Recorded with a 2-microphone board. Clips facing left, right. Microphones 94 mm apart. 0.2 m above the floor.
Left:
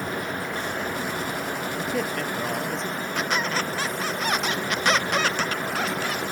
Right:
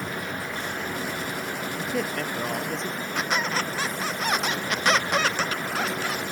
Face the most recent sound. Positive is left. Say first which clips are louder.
# even
turn(degrees=-5)  # may be behind; listen again after turning